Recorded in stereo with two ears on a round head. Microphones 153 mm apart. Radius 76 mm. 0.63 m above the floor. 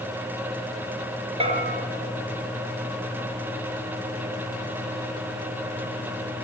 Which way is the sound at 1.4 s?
30° right (ahead or behind).